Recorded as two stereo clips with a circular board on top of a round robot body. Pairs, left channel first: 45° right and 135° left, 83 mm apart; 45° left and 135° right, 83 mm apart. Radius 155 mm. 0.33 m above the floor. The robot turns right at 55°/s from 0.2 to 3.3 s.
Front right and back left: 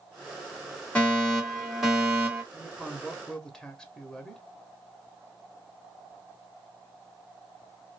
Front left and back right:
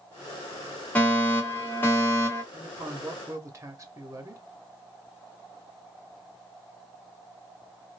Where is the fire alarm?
5° left, 2 m; by 2.4 s 90° left, 2 m.